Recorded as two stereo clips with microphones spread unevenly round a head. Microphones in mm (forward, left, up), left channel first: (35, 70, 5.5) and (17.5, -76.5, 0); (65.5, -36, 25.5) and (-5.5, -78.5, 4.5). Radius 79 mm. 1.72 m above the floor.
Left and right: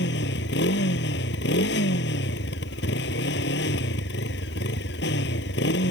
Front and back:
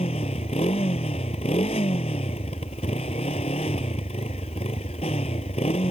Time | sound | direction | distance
0.0 | a motorcycle | 80° left | ?